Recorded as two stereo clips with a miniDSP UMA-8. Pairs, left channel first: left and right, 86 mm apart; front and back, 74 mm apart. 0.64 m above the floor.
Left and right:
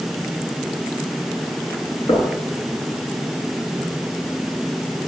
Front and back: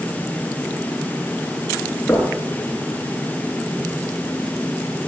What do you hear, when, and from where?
2.1 s knocking: 75° left, 9 m